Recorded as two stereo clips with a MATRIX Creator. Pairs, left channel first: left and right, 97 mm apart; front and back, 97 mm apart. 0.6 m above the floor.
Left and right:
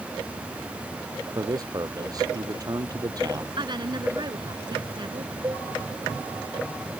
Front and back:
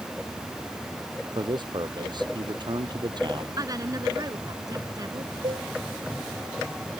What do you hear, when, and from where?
1.4 s a man speaking: 140° right
3.6 s a woman speaking: 130° right
5.4 s a cowbell: 150° right